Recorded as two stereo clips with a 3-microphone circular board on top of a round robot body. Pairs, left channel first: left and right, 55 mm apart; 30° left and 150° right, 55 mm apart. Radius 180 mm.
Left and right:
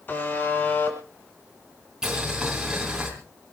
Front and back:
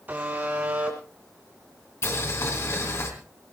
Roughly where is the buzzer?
Behind left.